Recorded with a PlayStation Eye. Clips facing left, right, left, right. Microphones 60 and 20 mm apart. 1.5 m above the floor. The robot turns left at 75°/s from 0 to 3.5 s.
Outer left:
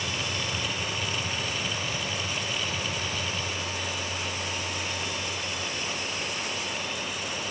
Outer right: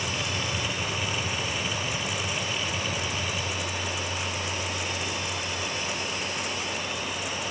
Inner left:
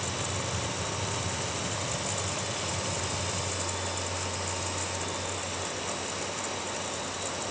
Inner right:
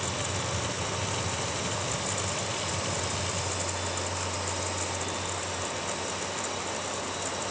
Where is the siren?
No siren in this recording.